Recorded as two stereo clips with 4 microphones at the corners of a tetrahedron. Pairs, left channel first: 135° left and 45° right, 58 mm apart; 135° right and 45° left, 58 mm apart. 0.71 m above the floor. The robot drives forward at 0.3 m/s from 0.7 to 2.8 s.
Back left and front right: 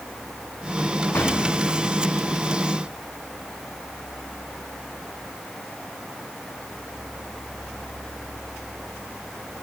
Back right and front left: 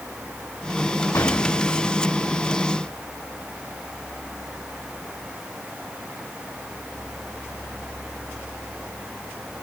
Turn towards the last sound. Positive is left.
turn(degrees=-170)